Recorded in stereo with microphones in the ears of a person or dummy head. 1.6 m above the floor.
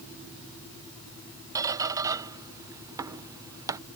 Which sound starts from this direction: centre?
A squeak, at 1.6 s.